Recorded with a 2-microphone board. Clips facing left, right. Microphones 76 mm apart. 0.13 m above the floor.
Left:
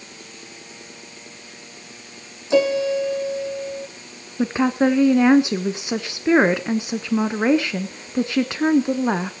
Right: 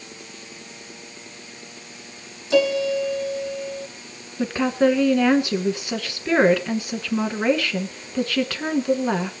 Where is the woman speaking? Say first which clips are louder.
Left 1 dB; 20° left (ahead or behind), 1.1 m.